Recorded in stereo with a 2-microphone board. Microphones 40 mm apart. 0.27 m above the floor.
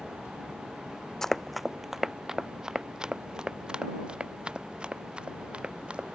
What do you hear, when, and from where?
1.2 s running footsteps: 15° left (ahead or behind); by 6.0 s 25° right (ahead or behind)